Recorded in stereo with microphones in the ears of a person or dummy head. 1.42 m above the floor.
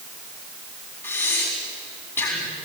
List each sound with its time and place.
1.0 s breathing: 15° left (ahead or behind), 3.5 m